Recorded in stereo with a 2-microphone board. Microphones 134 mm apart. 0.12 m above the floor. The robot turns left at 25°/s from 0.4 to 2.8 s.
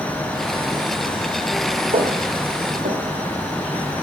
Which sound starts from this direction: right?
Footsteps, at 1.9 s.